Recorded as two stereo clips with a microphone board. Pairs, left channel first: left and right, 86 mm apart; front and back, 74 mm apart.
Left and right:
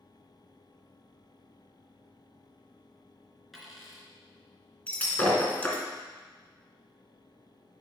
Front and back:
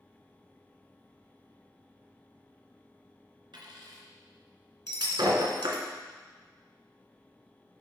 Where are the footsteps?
No footsteps in this recording.